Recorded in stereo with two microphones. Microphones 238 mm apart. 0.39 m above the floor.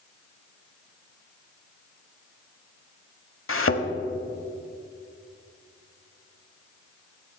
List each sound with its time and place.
3.5 s a thud: 65° left (ahead or behind), 0.8 m